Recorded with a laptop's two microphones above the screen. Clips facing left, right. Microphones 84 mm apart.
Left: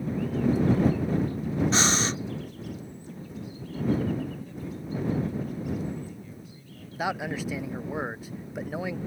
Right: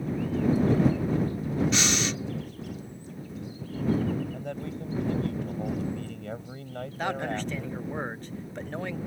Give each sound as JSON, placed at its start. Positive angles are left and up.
{"t": 1.7, "sound": "breathing", "side_deg": 35}
{"t": 4.3, "sound": "a man speaking", "side_deg": -80}
{"t": 7.0, "sound": "a man speaking", "side_deg": 10}